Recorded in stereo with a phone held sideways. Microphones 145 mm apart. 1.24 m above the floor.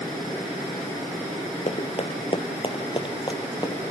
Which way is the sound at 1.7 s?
50° left (ahead or behind).